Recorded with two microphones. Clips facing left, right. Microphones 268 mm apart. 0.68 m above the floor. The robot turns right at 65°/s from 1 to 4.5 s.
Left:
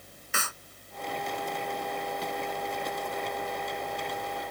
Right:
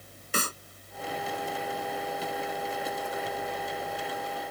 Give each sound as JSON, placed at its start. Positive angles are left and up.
{"t": 0.3, "sound": "a clap", "side_deg": -40}